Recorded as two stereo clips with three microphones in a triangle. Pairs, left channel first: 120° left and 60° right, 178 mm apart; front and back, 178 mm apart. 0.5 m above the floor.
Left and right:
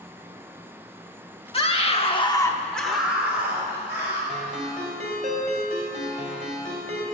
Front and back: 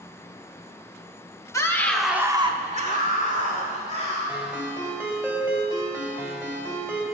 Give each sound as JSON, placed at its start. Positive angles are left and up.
{"t": 1.5, "sound": "a scream", "azimuth_deg": 70, "distance_m": 1.4}
{"t": 4.3, "sound": "a ringtone", "azimuth_deg": -105, "distance_m": 2.0}